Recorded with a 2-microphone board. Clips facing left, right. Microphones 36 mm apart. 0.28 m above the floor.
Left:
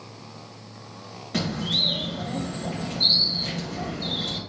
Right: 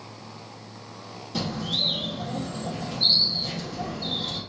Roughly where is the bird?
Left.